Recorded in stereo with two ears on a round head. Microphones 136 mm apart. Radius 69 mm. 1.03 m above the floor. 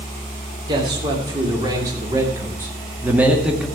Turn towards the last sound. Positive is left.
turn(degrees=-5)  # may be behind; listen again after turning